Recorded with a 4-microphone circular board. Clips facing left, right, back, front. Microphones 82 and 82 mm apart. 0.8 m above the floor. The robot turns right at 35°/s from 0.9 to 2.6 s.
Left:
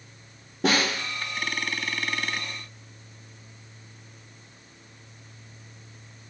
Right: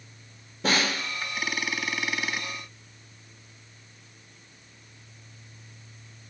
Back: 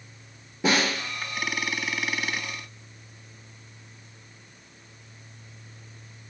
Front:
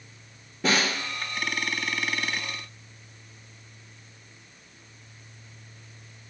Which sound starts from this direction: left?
A snare drum, at 0.6 s.